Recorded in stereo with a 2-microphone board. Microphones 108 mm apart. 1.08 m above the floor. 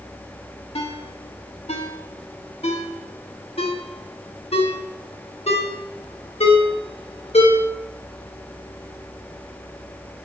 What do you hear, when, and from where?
0.8 s a ringtone: 70° left (ahead or behind), 1.3 m